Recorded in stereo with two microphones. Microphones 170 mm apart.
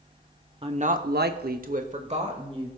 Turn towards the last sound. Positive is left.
turn(degrees=-35)  # may be behind; listen again after turning